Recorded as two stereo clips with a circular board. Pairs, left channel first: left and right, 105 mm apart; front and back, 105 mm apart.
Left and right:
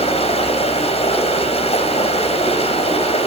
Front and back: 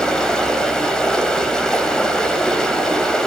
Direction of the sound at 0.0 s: 85° left.